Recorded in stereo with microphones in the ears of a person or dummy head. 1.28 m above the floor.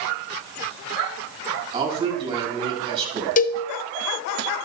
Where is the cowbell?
40° left (ahead or behind), 0.7 m.